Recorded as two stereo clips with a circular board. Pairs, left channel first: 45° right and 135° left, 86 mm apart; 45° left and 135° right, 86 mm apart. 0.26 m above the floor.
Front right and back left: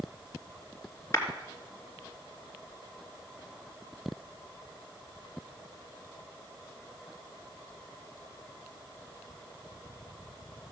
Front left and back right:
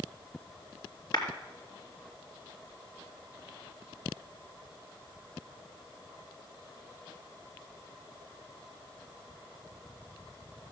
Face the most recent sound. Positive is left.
turn(degrees=10)